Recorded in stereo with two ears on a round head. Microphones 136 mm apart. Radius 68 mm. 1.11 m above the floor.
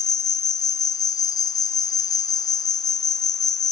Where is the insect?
25° left (ahead or behind), 0.7 m.